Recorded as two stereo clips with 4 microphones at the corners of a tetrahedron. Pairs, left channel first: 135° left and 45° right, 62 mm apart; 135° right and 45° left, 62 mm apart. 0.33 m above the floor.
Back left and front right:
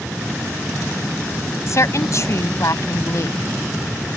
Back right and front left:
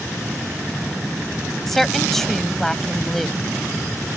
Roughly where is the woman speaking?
Behind left.